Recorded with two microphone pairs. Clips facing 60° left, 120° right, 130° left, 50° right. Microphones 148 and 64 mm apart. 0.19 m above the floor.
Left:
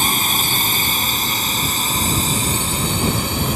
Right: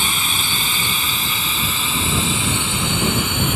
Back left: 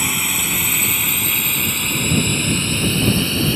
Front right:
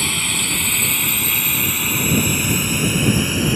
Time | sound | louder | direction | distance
0.0 | a drone | left 4 dB, back left 1 dB | 60° left | ?